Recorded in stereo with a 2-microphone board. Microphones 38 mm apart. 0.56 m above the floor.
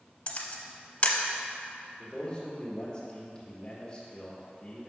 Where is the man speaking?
25° left (ahead or behind), 1.7 m.